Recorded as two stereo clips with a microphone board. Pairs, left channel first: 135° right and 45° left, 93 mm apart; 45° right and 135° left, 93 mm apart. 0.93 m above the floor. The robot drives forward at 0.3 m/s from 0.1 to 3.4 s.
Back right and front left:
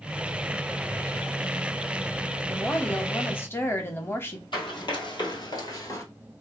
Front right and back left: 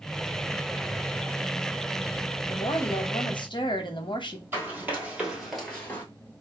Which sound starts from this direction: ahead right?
A woman speaking, at 2.5 s.